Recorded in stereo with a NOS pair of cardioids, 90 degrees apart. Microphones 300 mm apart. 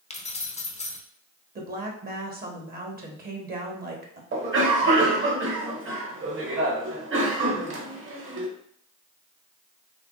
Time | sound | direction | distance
0.1 | keys jangling | 20° left | 0.7 m
1.6 | a woman speaking | 30° right | 1.2 m
4.3 | a cough | 40° right | 1.6 m